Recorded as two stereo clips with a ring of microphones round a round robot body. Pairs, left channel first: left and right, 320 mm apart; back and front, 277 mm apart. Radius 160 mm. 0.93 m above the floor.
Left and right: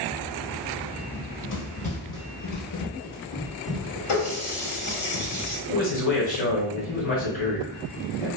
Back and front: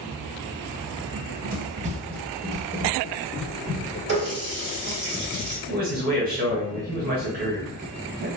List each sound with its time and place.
1.1 s running footsteps: 40° left, 1.4 m; by 4.0 s 100° left, 1.8 m
4.1 s a running tap: 50° left, 1.5 m
5.7 s a man speaking: 40° left, 1.1 m